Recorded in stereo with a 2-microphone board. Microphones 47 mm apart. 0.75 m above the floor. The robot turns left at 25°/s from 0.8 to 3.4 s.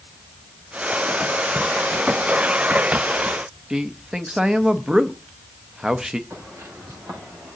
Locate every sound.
3.7 s a man speaking: 15° right (ahead or behind), 0.6 m
6.3 s footsteps: 65° right (ahead or behind), 6.5 m; by 7.6 s 70° right (ahead or behind), 6.5 m